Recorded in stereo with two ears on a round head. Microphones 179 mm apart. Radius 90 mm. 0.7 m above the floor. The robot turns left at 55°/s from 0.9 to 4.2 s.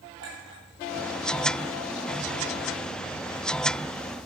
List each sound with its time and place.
0.2 s a clink: 65° right (ahead or behind), 8.5 m